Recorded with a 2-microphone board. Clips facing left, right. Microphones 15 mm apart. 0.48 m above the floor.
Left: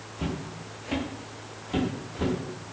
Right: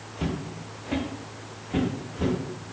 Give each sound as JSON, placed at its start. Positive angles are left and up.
{"t": 0.2, "sound": "footsteps", "side_deg": -30, "distance_m": 0.6}